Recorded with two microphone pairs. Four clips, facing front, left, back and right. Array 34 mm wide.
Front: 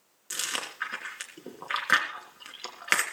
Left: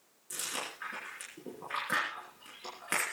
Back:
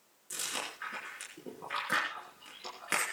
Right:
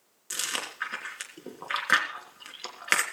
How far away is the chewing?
About 3.5 m.